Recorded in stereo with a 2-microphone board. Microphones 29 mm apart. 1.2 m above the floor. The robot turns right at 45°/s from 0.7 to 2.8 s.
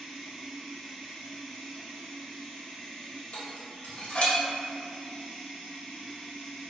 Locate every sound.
0.0 s running water: 10° right, 1.0 m; by 6.7 s 85° left, 1.0 m
3.3 s dishes clattering: 50° left (ahead or behind), 0.6 m